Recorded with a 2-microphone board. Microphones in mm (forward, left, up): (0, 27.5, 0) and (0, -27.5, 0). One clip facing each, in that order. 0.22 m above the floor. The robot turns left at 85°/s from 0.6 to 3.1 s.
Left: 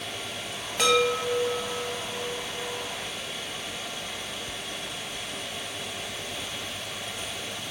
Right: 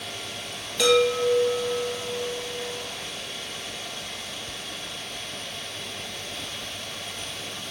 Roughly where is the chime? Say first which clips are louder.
Right 3 dB; ahead left.